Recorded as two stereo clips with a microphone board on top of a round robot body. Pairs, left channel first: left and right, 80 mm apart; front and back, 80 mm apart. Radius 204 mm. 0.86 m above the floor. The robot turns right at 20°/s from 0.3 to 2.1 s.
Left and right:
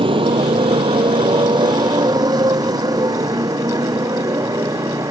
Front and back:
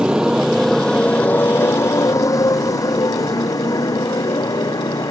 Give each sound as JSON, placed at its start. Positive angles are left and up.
{"t": 0.0, "sound": "a motorcycle", "azimuth_deg": -100}